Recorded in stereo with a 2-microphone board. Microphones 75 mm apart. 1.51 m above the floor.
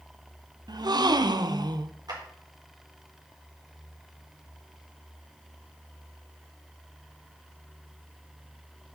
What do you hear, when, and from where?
0.7 s a gasp: 70° right (ahead or behind), 0.7 m
2.1 s a clap: 65° right (ahead or behind), 4 m